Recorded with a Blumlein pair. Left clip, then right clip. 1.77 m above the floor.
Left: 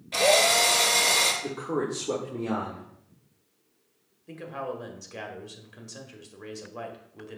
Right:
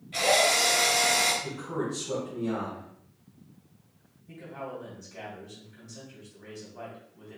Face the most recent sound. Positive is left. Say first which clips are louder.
# left 4 dB
turn(degrees=55)